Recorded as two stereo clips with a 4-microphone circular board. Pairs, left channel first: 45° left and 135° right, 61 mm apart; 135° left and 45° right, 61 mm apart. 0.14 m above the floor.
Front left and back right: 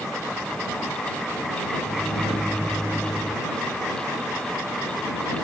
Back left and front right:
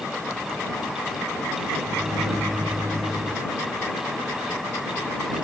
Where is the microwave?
35° right.